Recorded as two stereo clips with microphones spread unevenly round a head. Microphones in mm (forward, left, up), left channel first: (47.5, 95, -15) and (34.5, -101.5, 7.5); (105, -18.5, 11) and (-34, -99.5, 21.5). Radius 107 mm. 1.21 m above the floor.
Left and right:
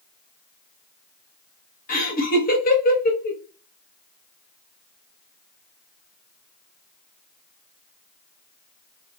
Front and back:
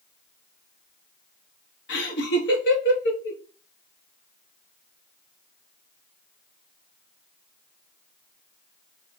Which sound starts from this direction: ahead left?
Laughter, at 1.9 s.